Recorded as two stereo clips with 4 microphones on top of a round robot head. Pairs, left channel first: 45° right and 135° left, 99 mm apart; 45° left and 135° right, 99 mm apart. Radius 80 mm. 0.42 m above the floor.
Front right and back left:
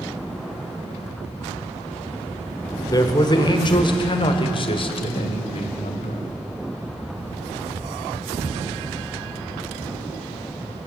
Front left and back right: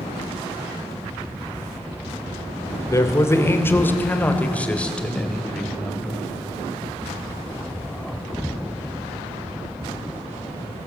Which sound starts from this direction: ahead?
A man speaking, at 2.9 s.